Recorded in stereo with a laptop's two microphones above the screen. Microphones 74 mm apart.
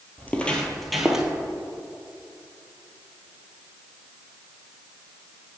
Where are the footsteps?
25° left (ahead or behind), 1.0 m; by 1.3 s 10° right (ahead or behind), 1.0 m.